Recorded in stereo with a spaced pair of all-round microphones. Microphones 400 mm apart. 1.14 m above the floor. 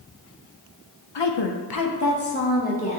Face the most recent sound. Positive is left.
turn(degrees=15)  # may be behind; listen again after turning